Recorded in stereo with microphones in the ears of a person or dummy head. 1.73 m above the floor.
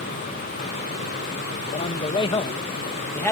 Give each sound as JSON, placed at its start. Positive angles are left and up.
{"t": 1.7, "sound": "a man speaking", "side_deg": 40}